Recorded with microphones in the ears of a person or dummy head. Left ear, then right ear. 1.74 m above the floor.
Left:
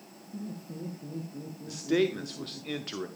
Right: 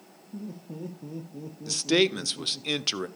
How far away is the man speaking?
About 0.5 m.